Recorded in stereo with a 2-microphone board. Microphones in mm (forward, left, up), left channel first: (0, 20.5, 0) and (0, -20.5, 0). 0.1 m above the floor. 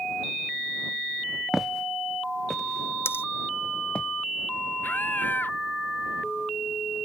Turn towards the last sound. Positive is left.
turn(degrees=50)  # may be behind; listen again after turning